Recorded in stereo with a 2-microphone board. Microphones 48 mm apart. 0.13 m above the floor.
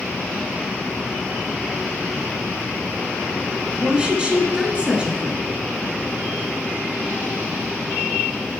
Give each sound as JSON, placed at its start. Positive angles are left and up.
{"t": 3.8, "sound": "a woman speaking", "side_deg": -20, "distance_m": 1.2}